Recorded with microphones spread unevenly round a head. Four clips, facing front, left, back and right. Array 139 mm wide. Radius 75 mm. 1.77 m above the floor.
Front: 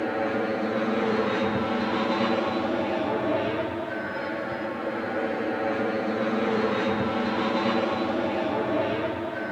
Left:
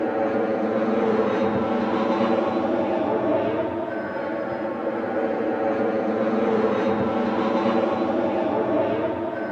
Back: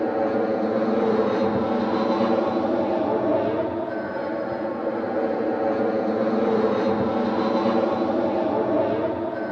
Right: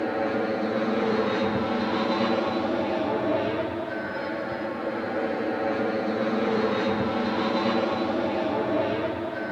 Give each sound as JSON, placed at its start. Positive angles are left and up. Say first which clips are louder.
{"t": 0.0, "sound": "an aircraft", "louder": "left 4 dB, back 4 dB", "azimuth_deg": 140}